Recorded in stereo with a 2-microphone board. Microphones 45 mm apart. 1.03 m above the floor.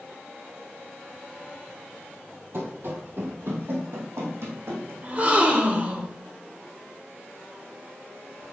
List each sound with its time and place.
2.5 s running footsteps: 55° right (ahead or behind), 1.8 m; by 4.9 s 70° right (ahead or behind), 3 m
5.0 s a gasp: 35° right (ahead or behind), 0.9 m